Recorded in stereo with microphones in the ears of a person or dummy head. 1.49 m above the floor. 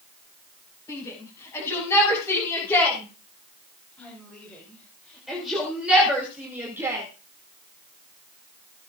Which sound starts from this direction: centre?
A shout, at 0.9 s.